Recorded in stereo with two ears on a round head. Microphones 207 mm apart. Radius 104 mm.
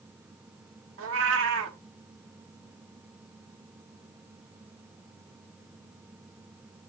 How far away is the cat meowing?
About 1.4 m.